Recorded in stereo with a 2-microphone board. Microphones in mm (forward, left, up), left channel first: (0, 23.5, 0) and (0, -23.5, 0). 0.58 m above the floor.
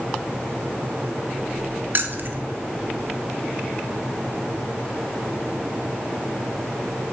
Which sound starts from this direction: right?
Keys jangling, at 1.9 s.